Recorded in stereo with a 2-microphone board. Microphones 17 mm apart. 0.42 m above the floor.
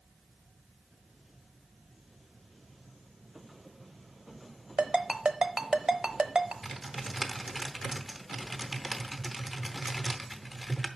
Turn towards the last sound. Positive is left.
turn(degrees=5)  # may be behind; listen again after turning